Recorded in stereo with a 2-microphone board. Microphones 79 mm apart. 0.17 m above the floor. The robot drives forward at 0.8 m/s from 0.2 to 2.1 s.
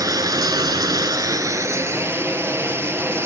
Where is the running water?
55° right (ahead or behind), 1.0 m; by 3.3 s 30° right (ahead or behind), 1.5 m.